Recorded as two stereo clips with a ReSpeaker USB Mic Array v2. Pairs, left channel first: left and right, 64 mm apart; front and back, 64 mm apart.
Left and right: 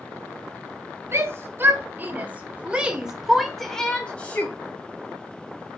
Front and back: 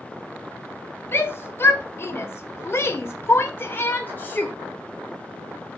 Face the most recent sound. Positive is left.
turn(degrees=50)